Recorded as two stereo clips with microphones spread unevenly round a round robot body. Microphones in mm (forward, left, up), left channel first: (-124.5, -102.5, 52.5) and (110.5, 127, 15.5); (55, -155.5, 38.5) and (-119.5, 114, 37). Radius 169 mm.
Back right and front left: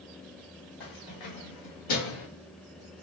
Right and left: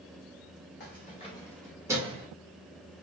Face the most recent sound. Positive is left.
turn(degrees=-170)